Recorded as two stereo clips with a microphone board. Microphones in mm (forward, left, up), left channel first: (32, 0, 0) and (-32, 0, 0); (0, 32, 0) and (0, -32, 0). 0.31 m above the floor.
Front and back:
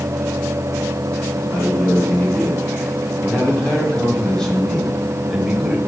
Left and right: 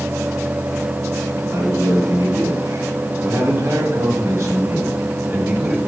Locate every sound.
1.5 s a man speaking: 60° right, 3 m; by 5.8 s 125° right, 1.1 m